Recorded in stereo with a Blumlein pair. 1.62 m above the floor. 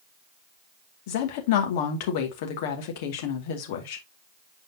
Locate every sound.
1.1 s a woman speaking: 50° left, 2 m